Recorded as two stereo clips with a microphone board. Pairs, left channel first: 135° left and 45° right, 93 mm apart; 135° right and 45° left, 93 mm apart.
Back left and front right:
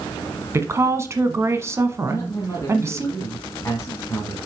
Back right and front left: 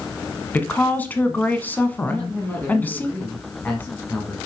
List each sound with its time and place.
0.5 s a woman speaking: 80° right, 1.2 m
2.1 s a man speaking: 165° left, 1.6 m